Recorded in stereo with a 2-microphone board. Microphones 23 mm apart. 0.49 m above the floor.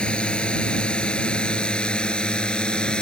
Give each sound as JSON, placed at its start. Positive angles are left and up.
{"t": 0.0, "sound": "a drone", "side_deg": 50}